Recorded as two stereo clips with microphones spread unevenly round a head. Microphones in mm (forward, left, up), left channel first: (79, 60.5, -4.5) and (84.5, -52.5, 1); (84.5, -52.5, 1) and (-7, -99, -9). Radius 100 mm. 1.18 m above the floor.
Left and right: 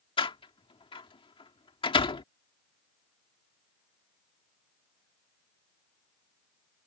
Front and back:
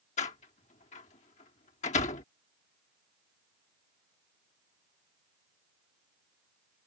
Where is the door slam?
50° left.